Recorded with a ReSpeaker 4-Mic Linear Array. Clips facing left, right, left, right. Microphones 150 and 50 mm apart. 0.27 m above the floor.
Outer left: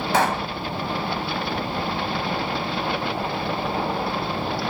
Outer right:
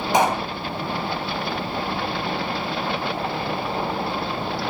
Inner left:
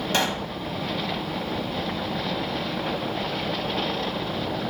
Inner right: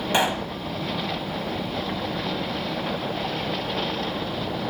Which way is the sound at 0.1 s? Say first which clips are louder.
Outer right 2 dB, inner right 3 dB; 20° right (ahead or behind).